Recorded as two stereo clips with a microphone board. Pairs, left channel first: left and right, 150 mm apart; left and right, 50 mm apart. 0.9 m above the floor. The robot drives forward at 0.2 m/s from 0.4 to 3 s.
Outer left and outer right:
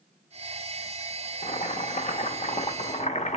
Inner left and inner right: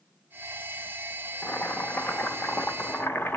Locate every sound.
1.4 s boiling: 55° left (ahead or behind), 0.7 m; by 3.4 s 50° left (ahead or behind), 0.7 m